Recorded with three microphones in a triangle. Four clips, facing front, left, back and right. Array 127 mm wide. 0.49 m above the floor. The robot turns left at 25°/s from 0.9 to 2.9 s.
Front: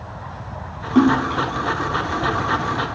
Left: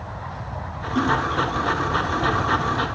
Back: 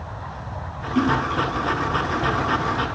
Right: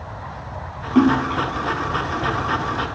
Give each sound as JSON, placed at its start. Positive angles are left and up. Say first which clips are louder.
{"t": 0.9, "sound": "a splash", "louder": "right 5 dB, front 5 dB", "azimuth_deg": -45}